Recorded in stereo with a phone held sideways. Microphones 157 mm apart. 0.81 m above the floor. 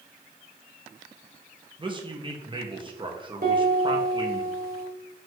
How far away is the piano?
About 1.9 m.